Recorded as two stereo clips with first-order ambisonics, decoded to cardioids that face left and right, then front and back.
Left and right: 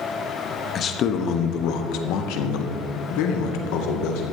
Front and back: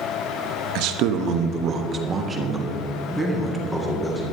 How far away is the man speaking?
About 1.0 m.